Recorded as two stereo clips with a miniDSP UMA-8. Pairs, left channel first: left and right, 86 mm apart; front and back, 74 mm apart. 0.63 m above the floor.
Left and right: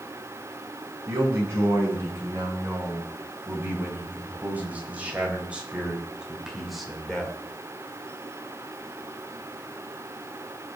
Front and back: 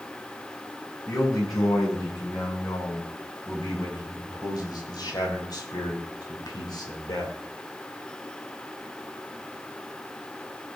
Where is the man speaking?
30° right, 6.5 m; by 7.4 s 10° left, 2.5 m.